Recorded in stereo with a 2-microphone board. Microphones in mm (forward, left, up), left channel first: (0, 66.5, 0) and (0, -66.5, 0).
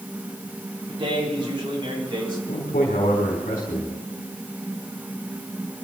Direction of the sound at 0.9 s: 40° right (ahead or behind).